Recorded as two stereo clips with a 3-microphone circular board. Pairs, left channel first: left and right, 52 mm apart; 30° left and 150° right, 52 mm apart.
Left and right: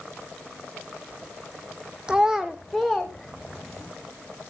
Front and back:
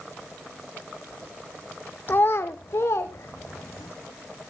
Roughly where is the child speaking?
Ahead.